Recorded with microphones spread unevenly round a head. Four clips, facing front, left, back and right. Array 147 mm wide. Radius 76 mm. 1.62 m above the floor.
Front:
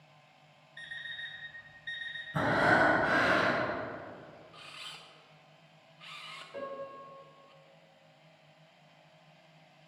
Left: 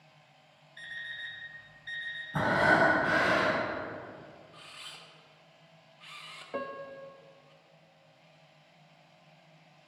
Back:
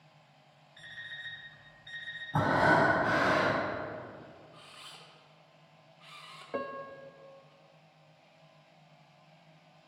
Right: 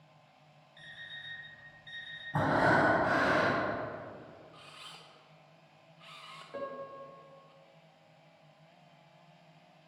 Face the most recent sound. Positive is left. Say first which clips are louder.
# left 3 dB, back 3 dB
turn(degrees=145)